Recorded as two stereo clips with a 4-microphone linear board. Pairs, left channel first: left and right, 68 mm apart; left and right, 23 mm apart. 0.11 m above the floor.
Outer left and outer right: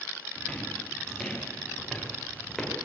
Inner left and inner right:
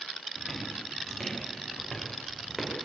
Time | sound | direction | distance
0.4 | footsteps | 10° left (ahead or behind) | 8 m